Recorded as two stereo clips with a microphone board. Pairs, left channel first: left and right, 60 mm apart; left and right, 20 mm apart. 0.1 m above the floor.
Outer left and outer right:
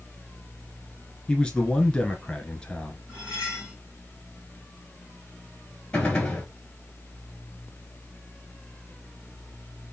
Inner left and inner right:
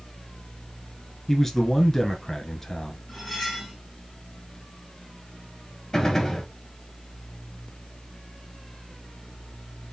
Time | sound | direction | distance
1.3 | a man speaking | 15° left (ahead or behind) | 1.2 m
3.1 | cutlery clinking | 15° right (ahead or behind) | 3 m
5.9 | a gunshot | 15° left (ahead or behind) | 1.7 m